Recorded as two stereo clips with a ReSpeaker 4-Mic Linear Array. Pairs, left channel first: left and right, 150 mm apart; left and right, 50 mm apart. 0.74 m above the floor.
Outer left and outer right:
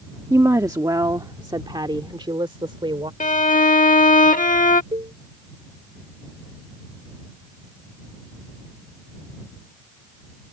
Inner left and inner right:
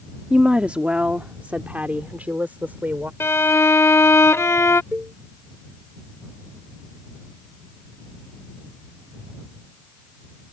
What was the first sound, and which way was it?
A woman speaking, 20° right (ahead or behind).